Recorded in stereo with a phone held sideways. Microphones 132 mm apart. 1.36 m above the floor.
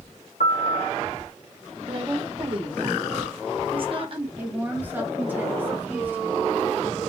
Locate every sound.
0.4 s a piano: 75° left (ahead or behind), 0.9 m
1.9 s a woman speaking: 40° right (ahead or behind), 1.4 m
4.4 s a woman speaking: 15° right (ahead or behind), 1.5 m